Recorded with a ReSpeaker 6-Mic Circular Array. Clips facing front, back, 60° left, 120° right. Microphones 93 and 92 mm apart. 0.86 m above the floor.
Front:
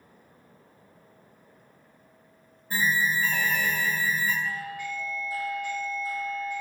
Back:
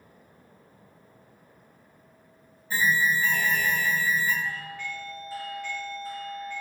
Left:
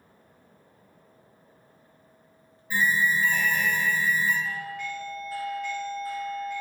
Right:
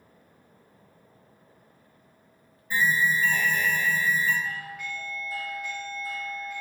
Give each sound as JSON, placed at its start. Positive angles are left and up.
{"t": 2.7, "sound": "an alarm", "azimuth_deg": -20, "distance_m": 1.6}
{"t": 4.4, "sound": "a doorbell", "azimuth_deg": -45, "distance_m": 1.1}